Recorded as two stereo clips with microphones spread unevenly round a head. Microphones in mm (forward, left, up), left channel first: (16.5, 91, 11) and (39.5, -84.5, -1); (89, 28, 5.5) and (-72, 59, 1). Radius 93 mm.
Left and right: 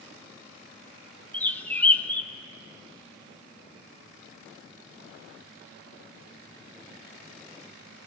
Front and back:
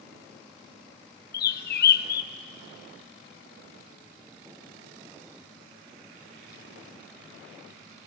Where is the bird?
15° left, 0.8 m.